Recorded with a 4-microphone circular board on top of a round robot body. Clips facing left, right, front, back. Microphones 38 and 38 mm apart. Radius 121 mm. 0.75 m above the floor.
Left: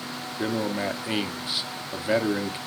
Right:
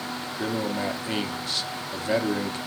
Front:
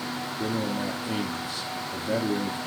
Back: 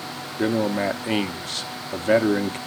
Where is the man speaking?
165° left, 1.6 m.